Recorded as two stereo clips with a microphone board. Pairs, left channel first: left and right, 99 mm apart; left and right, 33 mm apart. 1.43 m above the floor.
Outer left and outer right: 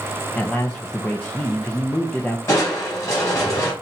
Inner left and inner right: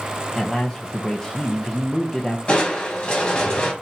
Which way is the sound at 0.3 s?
15° left (ahead or behind).